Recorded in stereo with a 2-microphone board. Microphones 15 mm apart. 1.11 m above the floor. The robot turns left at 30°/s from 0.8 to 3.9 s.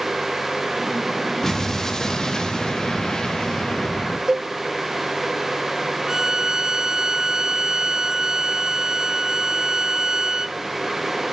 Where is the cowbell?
55° right (ahead or behind), 0.5 m.